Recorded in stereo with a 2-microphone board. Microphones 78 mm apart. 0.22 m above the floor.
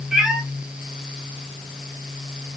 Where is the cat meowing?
5° right (ahead or behind), 1.6 m.